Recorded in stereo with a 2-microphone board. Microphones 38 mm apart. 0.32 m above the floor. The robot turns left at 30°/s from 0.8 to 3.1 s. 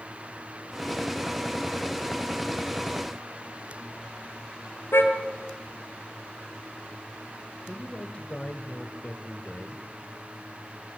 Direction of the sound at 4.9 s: 85° left.